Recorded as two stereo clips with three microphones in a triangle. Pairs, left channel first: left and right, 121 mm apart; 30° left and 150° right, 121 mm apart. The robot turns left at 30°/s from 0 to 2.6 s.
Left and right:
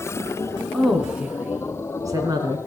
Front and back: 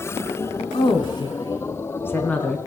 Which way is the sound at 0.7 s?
5° left.